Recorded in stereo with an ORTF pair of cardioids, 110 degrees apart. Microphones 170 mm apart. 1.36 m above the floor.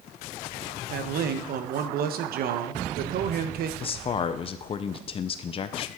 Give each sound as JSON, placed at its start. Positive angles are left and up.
{"t": 0.9, "sound": "a man speaking", "azimuth_deg": -65, "distance_m": 1.0}
{"t": 3.8, "sound": "a man speaking", "azimuth_deg": 35, "distance_m": 0.6}